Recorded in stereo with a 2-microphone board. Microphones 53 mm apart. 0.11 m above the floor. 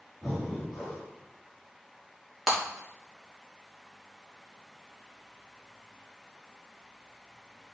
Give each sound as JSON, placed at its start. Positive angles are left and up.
{"t": 0.2, "sound": "breathing", "side_deg": 0, "distance_m": 3.5}
{"t": 2.5, "sound": "breaking glass", "side_deg": -5, "distance_m": 5.0}